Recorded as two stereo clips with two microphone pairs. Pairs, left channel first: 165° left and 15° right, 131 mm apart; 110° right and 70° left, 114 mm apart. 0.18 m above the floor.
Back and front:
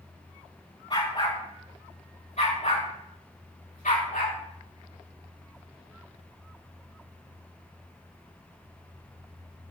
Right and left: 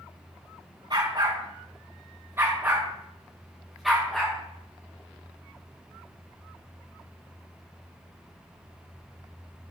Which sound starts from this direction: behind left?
A dog barking, at 0.9 s.